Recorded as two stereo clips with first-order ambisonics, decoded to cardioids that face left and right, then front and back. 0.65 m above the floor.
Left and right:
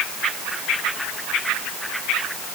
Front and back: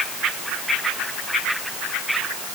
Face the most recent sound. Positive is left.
No sound to turn to.